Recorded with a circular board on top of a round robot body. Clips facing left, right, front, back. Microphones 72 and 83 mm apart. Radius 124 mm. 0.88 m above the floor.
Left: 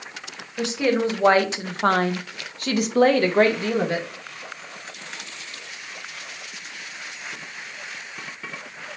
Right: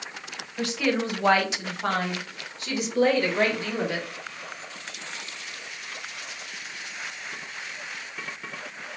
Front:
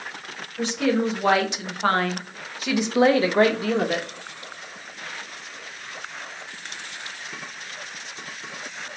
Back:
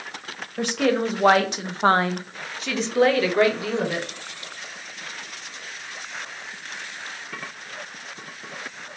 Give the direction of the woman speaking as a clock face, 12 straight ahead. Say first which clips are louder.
Left 4 dB, back 1 dB; 7 o'clock.